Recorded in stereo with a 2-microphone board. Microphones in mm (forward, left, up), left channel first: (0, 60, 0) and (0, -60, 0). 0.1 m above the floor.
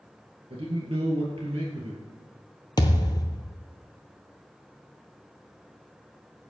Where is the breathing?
I don't hear breathing.